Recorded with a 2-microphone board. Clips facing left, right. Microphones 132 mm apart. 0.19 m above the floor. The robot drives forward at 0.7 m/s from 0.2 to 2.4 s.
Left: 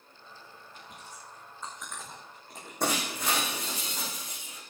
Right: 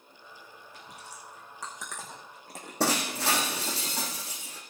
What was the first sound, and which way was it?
Chewing, 75° right (ahead or behind).